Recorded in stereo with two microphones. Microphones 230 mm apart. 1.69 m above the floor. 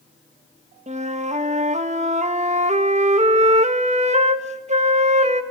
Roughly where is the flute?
Right.